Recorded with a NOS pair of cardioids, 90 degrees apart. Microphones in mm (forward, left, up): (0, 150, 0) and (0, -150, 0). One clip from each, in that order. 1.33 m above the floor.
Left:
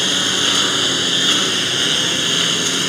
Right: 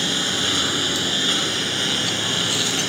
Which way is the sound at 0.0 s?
30° left.